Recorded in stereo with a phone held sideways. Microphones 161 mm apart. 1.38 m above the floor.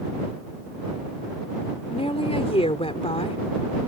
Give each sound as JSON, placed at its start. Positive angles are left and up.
{"t": 1.9, "sound": "a woman speaking", "side_deg": 35}